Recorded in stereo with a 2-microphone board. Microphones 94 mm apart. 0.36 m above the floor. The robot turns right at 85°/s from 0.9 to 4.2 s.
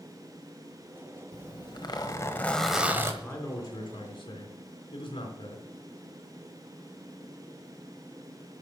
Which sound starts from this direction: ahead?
A man speaking, at 3.2 s.